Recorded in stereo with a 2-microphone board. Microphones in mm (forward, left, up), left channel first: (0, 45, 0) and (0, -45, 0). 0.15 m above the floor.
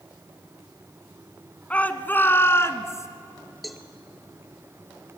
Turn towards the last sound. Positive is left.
turn(degrees=0)  # may be behind; listen again after turning